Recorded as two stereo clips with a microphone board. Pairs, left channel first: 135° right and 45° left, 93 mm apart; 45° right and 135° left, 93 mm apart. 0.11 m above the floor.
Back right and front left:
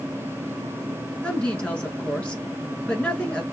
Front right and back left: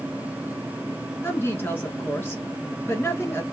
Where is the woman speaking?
70° right, 1.2 m.